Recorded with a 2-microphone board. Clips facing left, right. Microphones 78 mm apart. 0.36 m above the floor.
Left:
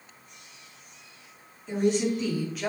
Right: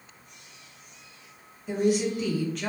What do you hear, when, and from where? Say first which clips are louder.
1.7 s a woman speaking: even; 10° right (ahead or behind), 1.9 m; by 2.7 s 10° left (ahead or behind), 1.3 m